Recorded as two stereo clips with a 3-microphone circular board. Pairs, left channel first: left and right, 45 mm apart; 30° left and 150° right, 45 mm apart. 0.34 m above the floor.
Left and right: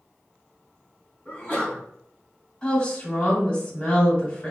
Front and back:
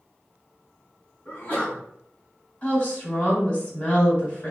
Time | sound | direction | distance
1.2 | a sneeze | 50° left | 1.6 m
2.6 | a woman speaking | 55° left | 1.4 m